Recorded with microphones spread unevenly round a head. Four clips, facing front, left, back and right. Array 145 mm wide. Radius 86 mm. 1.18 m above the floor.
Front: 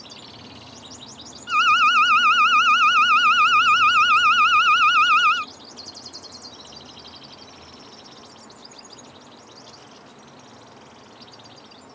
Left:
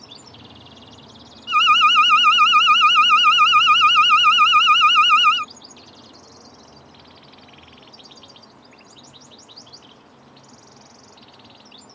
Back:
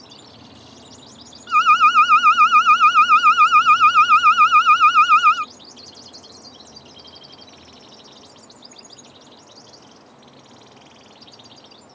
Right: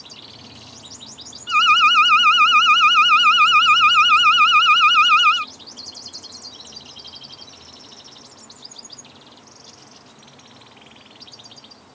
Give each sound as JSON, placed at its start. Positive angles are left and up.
{"t": 1.5, "sound": "an alarm", "azimuth_deg": 155}